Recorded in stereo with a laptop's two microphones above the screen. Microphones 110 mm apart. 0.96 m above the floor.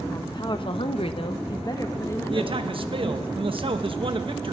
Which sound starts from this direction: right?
A man speaking, at 2.3 s.